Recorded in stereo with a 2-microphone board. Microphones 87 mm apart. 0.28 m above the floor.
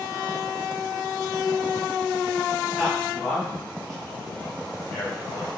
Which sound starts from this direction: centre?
A man speaking, at 2.8 s.